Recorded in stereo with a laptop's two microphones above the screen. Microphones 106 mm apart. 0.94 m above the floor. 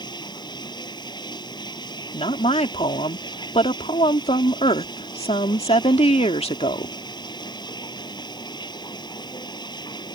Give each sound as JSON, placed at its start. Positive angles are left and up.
{"t": 0.0, "sound": "running water", "side_deg": 40}
{"t": 2.1, "sound": "a woman speaking", "side_deg": 70}